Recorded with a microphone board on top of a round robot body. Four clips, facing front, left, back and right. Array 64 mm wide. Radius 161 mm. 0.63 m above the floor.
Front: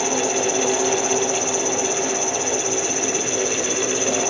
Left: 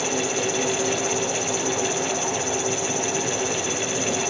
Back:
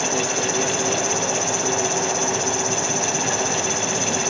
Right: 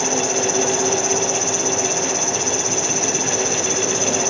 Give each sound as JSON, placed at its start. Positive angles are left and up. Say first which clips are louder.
{"t": 0.0, "sound": "an insect", "louder": "right 4 dB, front 2 dB", "azimuth_deg": -155}